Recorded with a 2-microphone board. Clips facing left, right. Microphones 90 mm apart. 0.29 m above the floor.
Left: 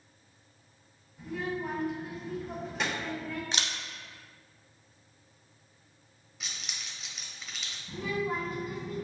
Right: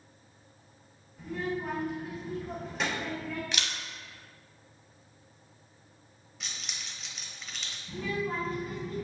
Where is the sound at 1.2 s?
Centre (ahead or behind), 1.5 m.